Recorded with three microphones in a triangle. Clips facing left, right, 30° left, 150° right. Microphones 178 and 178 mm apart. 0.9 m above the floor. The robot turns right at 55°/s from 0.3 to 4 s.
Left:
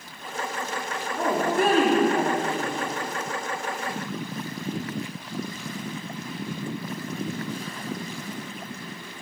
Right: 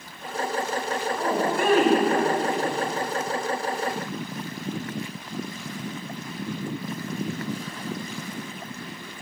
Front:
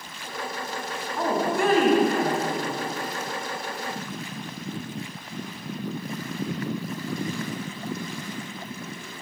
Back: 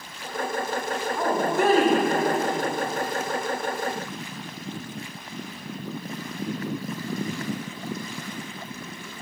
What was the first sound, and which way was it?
A woman speaking, 120° left.